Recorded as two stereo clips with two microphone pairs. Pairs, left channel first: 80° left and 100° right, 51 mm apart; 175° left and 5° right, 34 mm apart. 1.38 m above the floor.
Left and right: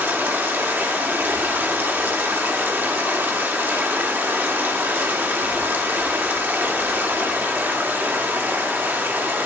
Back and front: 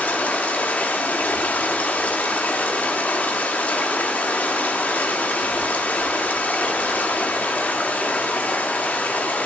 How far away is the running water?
About 1.8 m.